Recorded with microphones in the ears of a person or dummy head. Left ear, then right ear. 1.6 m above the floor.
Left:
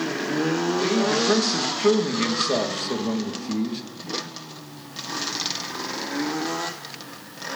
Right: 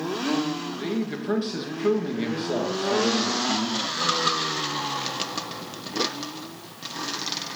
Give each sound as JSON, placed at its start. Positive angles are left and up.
{"t": 0.8, "sound": "a man speaking", "side_deg": 25, "distance_m": 2.5}